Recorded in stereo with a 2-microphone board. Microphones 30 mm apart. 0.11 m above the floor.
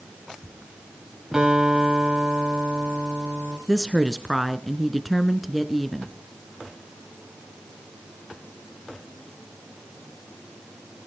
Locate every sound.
1.3 s a guitar: 20° right (ahead or behind), 9 m
3.7 s a woman speaking: 5° right (ahead or behind), 1.2 m